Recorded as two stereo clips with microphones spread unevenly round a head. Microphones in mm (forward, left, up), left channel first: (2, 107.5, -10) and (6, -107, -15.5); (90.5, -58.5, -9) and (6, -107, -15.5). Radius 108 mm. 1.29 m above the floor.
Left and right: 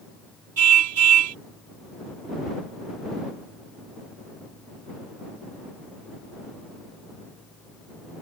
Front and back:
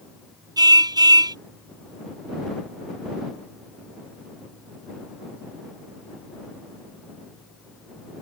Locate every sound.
0.6 s a car horn: 105° right